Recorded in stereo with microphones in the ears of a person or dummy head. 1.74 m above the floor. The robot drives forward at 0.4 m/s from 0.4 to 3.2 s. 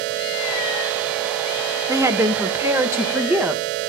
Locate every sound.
1.9 s a woman speaking: 20° right (ahead or behind), 1.2 m; by 3.9 s 15° right (ahead or behind), 1.7 m